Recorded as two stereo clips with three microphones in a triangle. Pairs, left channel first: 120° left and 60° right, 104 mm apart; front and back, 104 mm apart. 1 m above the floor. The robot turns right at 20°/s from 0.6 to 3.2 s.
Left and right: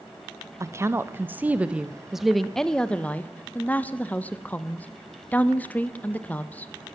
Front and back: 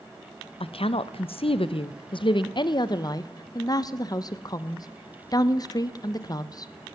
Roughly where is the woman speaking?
Ahead.